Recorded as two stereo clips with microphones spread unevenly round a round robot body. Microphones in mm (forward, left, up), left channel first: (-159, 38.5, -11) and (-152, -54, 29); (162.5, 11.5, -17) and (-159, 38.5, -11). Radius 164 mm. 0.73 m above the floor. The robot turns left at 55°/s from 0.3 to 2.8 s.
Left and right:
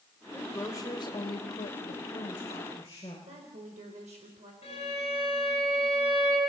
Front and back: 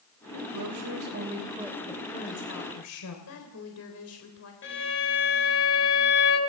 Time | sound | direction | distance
0.3 | a woman speaking | 165° left | 3 m
3.3 | a woman speaking | 50° right | 3.5 m
4.6 | a violin | 50° left | 6 m